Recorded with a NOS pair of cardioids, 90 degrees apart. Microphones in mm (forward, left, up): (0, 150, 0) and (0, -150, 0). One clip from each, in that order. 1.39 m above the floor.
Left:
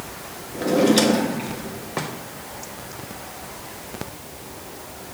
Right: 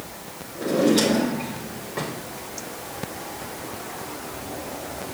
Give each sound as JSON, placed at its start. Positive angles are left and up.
{"t": 0.6, "sound": "a drawer", "azimuth_deg": 45, "distance_m": 1.5}